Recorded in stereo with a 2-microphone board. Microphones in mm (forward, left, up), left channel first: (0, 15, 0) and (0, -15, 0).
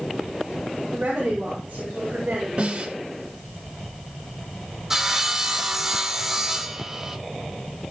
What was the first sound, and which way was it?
A woman speaking, 45° right (ahead or behind).